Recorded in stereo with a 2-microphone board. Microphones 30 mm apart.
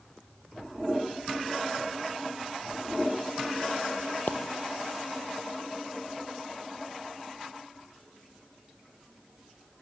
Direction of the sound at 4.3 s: 75° left (ahead or behind).